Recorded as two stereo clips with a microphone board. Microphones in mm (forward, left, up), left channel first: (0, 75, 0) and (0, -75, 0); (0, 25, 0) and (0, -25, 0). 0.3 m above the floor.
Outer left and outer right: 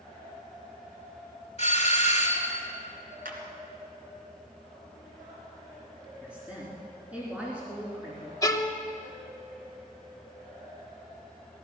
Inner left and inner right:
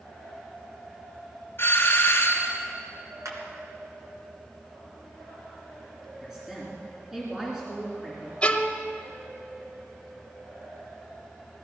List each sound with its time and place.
1.6 s a doorbell: 45° left (ahead or behind), 2.5 m
3.2 s a clap: 75° right (ahead or behind), 3 m
6.2 s a woman speaking: 10° right (ahead or behind), 3.5 m
8.4 s a violin: 25° left (ahead or behind), 1.1 m